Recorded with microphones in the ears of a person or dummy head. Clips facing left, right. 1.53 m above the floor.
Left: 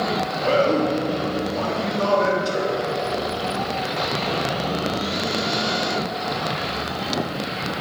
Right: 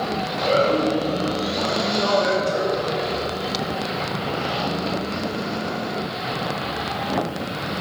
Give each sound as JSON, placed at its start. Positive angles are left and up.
{"t": 0.4, "sound": "a man speaking", "side_deg": 60, "distance_m": 3.5}